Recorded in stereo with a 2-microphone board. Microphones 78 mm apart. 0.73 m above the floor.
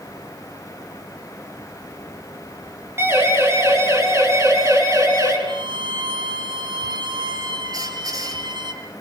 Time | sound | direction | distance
3.0 | a siren | 35° right (ahead or behind) | 7.5 m
5.5 | a violin | 80° right | 5 m
7.7 | a squeak | 55° right (ahead or behind) | 5.5 m